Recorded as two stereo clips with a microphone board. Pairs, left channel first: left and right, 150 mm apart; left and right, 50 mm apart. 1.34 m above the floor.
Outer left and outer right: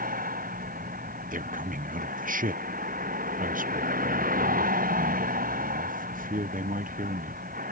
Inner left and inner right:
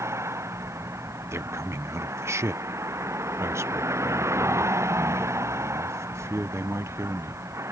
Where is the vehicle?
70° right (ahead or behind).